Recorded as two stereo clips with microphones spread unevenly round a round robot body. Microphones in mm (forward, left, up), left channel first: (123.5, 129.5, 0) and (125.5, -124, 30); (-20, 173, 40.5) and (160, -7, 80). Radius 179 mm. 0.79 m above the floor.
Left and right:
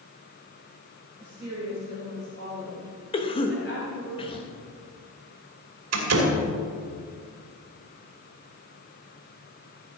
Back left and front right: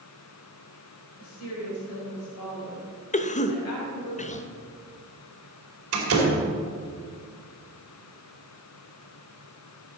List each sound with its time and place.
1.2 s a woman speaking: 165° left, 4 m; by 4.1 s 150° left, 5.5 m
3.1 s a cough: 135° left, 1.1 m
5.9 s a door slam: 80° right, 2.5 m